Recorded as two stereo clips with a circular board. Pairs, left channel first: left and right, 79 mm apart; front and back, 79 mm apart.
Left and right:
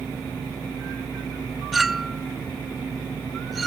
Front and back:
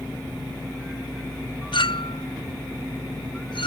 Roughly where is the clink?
Ahead.